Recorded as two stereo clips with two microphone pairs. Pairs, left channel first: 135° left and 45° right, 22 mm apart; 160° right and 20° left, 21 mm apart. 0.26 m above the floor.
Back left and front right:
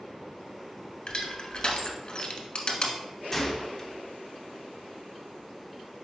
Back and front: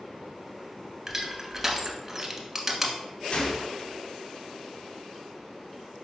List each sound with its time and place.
1.1 s crushing: 95° left, 0.7 m
3.3 s a gunshot: 150° right, 0.8 m